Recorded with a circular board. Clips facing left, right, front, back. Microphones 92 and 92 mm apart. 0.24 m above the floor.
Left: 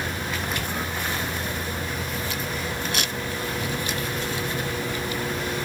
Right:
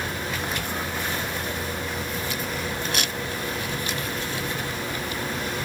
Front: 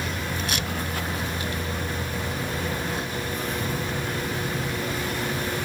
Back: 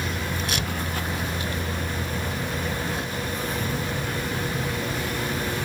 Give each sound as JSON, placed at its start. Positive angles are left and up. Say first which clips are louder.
{"t": 0.6, "sound": "a shout", "louder": "even, back 1 dB", "azimuth_deg": -175}